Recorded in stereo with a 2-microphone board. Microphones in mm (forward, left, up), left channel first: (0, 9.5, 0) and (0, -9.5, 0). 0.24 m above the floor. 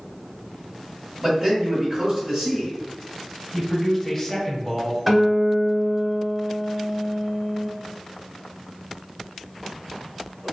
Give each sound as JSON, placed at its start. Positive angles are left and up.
{"t": 1.2, "sound": "a man speaking", "side_deg": -20, "distance_m": 1.5}
{"t": 3.5, "sound": "a man speaking", "side_deg": 10, "distance_m": 1.2}
{"t": 5.1, "sound": "a guitar", "side_deg": -5, "distance_m": 0.7}